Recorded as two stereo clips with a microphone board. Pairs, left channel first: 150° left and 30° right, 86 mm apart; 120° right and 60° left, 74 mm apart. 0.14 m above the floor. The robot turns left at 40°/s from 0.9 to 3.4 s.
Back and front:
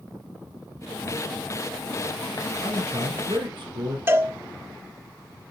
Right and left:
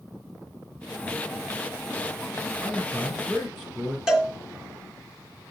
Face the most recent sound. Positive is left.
turn(degrees=-15)